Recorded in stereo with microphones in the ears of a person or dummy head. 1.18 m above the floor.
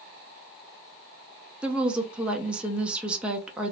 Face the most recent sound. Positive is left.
turn(degrees=-5)  # may be behind; listen again after turning